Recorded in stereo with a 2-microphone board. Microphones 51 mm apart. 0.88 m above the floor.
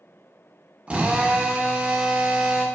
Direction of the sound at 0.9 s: 25° right (ahead or behind).